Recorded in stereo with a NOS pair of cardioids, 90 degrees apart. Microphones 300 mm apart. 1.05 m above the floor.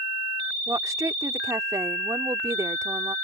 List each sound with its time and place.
0.7 s a woman speaking: 10° right